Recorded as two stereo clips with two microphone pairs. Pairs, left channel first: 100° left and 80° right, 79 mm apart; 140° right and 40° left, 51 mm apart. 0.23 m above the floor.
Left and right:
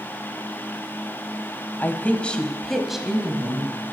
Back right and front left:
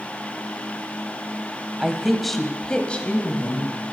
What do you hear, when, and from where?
1.8 s a woman speaking: 100° left, 1.0 m; by 3.8 s 140° right, 1.2 m